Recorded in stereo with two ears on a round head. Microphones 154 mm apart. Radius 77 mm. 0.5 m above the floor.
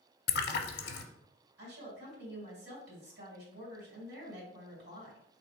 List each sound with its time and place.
0.3 s a splash: 60° left (ahead or behind), 0.6 m
1.6 s a woman speaking: 65° right (ahead or behind), 2.5 m